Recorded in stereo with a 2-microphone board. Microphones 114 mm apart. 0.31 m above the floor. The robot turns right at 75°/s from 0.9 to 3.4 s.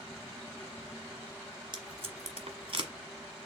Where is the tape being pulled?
45° right (ahead or behind), 1.2 m; by 2.9 s 40° right (ahead or behind), 1.2 m.